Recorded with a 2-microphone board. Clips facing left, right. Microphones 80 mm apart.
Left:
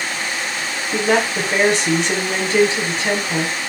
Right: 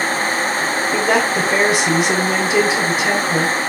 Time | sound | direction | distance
0.9 | a woman speaking | 5° right (ahead or behind) | 1.6 m